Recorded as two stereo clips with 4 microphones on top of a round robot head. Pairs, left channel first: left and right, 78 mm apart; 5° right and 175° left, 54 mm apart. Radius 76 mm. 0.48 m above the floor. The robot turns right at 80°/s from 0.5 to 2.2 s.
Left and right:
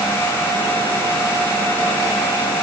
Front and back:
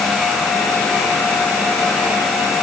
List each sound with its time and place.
Only background noise.